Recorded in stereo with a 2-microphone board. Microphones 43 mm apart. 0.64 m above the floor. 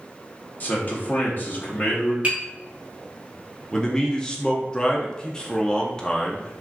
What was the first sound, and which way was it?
A man speaking, 45° left (ahead or behind).